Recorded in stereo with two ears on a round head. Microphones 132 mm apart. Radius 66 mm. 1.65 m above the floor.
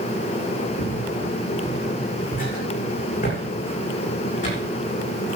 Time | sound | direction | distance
0.8 | footsteps | 65° left (ahead or behind) | 9 m